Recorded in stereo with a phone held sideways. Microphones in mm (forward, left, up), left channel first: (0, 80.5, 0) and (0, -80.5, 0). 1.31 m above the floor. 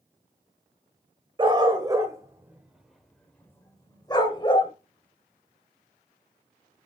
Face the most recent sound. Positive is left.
turn(degrees=35)  # may be behind; listen again after turning